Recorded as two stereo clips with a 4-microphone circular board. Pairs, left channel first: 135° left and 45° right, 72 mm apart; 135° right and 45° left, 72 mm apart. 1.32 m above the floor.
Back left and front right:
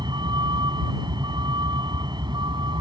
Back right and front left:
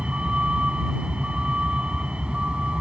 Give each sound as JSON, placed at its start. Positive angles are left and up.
{"t": 0.0, "sound": "a vehicle", "azimuth_deg": -30}